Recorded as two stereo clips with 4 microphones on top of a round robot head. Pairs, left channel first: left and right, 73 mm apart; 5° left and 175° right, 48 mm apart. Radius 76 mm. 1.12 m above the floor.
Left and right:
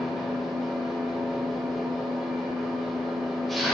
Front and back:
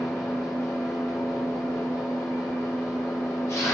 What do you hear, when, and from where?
0.0 s an engine running: straight ahead, 1.0 m